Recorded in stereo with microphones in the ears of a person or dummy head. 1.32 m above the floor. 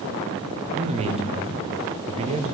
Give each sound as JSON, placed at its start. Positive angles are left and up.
{"t": 0.8, "sound": "a man speaking", "side_deg": -25, "distance_m": 0.6}